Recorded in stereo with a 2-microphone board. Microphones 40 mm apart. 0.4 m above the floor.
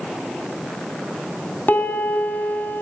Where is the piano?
50° left (ahead or behind), 2.5 m.